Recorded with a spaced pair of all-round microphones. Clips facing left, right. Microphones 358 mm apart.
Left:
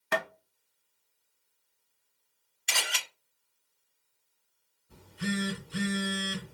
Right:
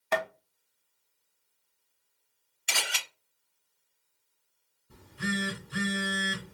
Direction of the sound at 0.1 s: 20° left (ahead or behind).